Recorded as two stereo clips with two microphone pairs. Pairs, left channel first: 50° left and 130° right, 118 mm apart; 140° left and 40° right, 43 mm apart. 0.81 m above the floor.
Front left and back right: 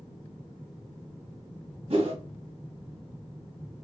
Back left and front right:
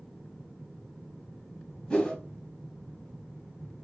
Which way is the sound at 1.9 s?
160° right.